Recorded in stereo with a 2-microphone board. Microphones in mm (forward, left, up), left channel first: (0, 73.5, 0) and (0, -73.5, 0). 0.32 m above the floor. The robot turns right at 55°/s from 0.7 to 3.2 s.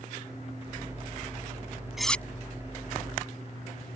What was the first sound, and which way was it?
Cutlery clinking, centre (ahead or behind).